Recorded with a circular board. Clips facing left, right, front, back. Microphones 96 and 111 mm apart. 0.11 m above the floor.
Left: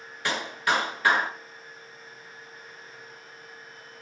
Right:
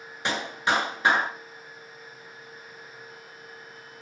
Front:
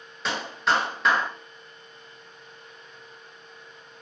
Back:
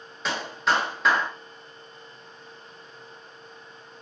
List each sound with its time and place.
0.2 s a clap: 90° right, 0.9 m